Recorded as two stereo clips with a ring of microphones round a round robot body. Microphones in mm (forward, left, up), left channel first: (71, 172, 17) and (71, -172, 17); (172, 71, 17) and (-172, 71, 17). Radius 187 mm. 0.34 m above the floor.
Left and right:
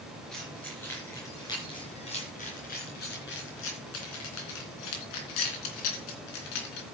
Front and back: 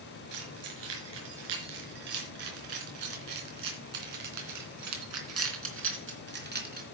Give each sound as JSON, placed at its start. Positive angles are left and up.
{"t": 0.3, "sound": "keys jangling", "azimuth_deg": 180, "distance_m": 4.0}